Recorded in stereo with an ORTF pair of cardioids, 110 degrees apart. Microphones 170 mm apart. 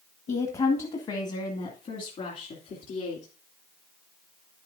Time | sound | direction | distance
0.3 | a woman speaking | 40° left | 1.6 m